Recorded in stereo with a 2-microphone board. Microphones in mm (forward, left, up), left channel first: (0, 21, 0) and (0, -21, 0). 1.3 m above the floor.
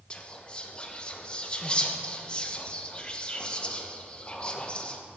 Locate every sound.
0.1 s whispering: 25° left (ahead or behind), 0.9 m